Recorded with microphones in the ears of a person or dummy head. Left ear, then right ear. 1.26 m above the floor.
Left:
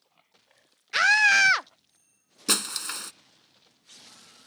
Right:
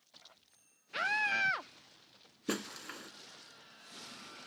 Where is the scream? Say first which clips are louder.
Left 13 dB; 55° left (ahead or behind).